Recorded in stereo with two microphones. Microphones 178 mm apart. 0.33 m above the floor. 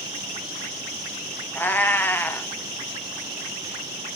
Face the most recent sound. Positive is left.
turn(degrees=10)  # may be behind; listen again after turning